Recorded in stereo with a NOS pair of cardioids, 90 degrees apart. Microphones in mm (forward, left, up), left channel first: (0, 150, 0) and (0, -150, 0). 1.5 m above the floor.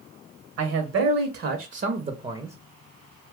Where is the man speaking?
70° right, 1.2 m; by 2.6 s 5° right, 0.7 m.